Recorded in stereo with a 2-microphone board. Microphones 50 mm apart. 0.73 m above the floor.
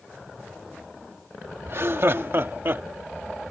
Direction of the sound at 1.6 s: 55° right (ahead or behind).